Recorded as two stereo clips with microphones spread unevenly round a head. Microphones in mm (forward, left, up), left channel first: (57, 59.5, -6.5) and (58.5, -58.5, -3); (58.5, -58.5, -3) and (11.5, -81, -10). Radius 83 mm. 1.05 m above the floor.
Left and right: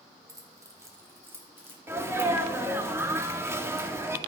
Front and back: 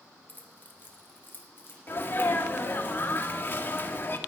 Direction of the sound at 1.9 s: 20° right.